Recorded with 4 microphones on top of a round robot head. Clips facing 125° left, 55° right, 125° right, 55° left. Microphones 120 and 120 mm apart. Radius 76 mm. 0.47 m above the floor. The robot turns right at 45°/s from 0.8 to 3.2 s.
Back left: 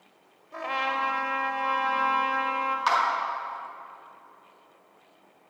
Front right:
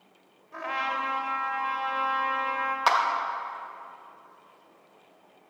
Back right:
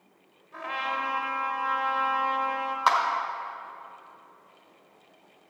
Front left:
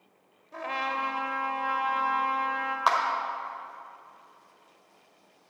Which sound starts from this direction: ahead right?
A clap, at 2.9 s.